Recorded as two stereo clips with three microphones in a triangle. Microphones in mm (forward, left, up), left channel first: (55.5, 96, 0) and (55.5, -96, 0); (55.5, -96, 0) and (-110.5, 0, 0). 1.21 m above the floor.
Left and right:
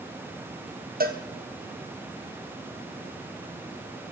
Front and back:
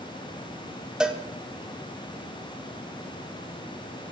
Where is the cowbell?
125° right, 1.5 m.